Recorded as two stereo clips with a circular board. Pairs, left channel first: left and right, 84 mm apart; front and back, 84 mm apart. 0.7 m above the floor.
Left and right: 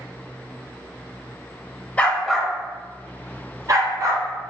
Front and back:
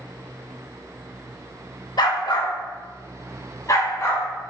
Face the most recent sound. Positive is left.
turn(degrees=-55)